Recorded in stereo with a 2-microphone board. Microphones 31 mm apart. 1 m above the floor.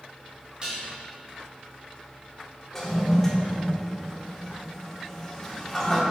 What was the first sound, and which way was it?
Dishes clattering, 30° right (ahead or behind).